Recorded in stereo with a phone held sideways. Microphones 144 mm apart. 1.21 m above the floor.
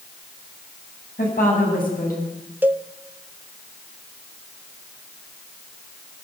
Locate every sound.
1.2 s a woman speaking: 90° left, 8 m
2.6 s a cowbell: 10° right (ahead or behind), 0.8 m